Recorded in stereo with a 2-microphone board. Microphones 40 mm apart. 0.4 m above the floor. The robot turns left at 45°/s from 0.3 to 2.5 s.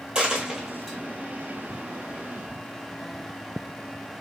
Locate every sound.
0.1 s a dropped coin: 25° right (ahead or behind), 1.3 m; by 1.0 s 5° left (ahead or behind), 1.3 m